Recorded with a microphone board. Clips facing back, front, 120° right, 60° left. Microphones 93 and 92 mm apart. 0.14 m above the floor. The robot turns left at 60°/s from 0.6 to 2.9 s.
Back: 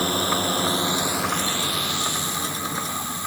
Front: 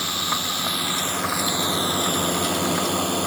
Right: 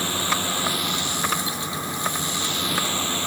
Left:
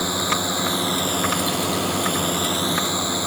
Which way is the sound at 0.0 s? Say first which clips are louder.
Back 4 dB, left 3 dB; 130° left.